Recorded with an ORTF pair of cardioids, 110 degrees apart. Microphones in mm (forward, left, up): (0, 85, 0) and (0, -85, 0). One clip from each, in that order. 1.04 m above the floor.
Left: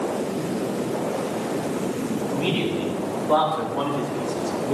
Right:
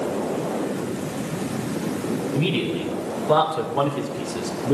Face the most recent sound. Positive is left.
turn(degrees=-45)